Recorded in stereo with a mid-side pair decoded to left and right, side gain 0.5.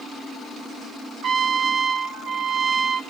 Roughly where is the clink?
No clink in this recording.